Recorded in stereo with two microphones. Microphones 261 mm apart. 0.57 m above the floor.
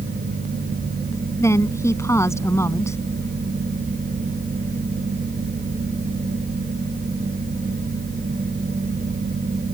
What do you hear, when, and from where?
1.4 s a woman speaking: 10° left (ahead or behind)